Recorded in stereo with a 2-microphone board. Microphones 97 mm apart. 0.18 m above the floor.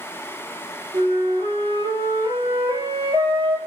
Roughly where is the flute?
Right.